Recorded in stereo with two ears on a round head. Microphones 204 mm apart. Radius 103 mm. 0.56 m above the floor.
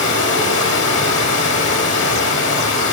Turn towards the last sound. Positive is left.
turn(degrees=60)  # may be behind; listen again after turning